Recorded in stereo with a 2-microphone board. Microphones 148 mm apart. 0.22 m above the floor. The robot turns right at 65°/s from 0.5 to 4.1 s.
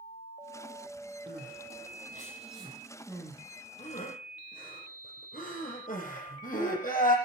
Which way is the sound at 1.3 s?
60° right (ahead or behind).